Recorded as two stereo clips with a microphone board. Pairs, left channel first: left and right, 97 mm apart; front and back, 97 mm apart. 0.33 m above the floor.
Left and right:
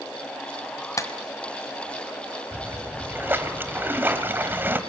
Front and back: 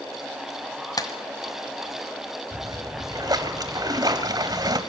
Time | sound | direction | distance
1.0 | a clap | 40° left | 1.5 m
2.5 | a splash | 150° right | 1.5 m